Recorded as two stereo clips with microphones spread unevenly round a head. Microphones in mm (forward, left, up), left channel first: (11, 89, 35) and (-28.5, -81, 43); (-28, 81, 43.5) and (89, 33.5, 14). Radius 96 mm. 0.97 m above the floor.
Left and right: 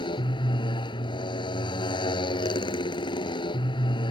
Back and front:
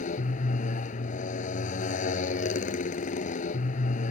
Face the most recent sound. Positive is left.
turn(degrees=140)